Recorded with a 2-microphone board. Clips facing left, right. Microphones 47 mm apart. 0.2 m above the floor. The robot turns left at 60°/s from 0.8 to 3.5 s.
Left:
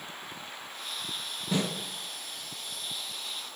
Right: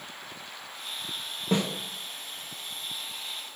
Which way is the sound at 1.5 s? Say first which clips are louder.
Right 3 dB; 60° right (ahead or behind).